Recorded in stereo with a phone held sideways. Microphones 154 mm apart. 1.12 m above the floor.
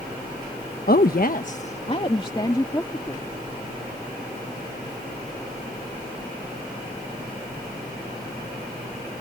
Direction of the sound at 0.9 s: 70° left (ahead or behind).